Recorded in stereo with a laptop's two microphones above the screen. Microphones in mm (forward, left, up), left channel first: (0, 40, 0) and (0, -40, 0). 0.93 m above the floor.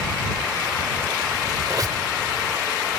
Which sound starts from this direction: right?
A squeak, at 1.7 s.